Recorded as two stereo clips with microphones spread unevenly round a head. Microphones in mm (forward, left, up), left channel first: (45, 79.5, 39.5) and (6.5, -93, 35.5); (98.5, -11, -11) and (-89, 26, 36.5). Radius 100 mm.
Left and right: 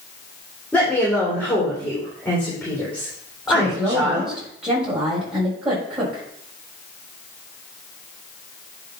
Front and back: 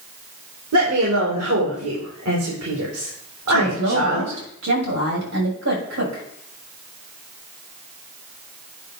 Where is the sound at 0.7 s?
160° left, 3.5 m.